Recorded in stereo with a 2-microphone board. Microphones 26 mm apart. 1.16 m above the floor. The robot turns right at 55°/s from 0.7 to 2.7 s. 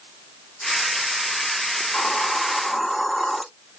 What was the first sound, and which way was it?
A hiss, 125° left.